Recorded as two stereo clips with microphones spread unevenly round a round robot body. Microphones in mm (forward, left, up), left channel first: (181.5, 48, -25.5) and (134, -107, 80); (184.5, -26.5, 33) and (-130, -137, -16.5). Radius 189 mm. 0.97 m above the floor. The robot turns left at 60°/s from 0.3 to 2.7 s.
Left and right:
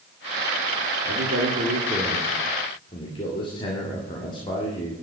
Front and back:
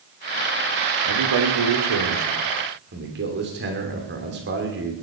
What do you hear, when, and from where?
1.1 s a man speaking: 125° right, 2.5 m; by 4.9 s 135° left, 2.5 m